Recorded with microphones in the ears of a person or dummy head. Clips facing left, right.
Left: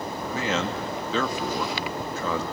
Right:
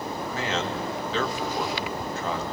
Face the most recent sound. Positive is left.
turn(degrees=75)  # may be behind; listen again after turning